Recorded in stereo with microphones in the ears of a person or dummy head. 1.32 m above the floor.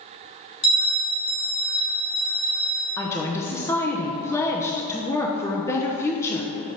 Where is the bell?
60° left (ahead or behind), 2.0 m.